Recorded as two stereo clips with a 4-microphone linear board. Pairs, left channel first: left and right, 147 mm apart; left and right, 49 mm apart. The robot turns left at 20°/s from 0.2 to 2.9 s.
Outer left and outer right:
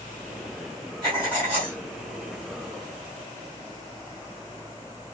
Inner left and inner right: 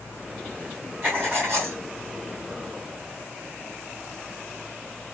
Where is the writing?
30° right (ahead or behind), 3.5 m; by 1.8 s 45° right (ahead or behind), 3.5 m.